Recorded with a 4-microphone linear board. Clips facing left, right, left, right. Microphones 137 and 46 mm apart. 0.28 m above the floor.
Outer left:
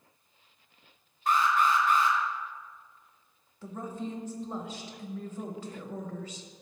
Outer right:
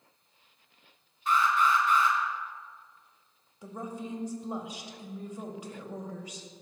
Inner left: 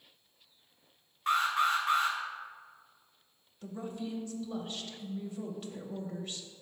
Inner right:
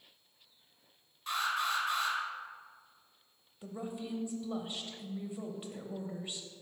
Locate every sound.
1.3 s an alarm: 45° left (ahead or behind), 1.9 m
3.6 s a woman speaking: 15° right (ahead or behind), 0.9 m